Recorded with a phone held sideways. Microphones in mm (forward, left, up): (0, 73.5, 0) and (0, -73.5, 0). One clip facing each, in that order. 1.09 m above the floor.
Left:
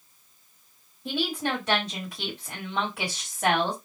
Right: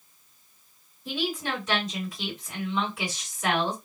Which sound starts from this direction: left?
A woman speaking, at 1.1 s.